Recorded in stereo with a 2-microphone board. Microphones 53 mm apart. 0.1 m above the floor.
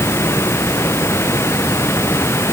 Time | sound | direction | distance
0.0 | running water | 55° left (ahead or behind) | ?